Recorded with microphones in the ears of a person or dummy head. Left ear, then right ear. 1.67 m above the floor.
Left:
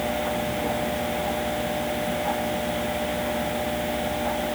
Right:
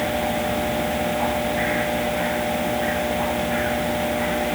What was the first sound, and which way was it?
Only background noise.